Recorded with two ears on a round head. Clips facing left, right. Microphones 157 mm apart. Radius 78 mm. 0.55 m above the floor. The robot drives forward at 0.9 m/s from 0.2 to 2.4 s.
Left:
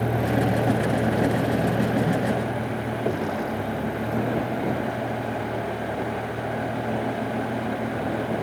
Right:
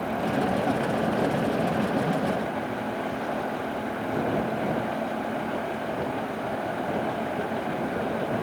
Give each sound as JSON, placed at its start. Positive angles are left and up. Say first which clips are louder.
{"t": 0.0, "sound": "a vehicle", "louder": "left 3 dB", "side_deg": 80}